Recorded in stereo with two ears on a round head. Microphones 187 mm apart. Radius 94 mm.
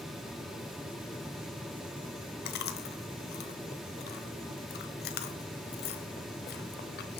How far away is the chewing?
About 1.0 m.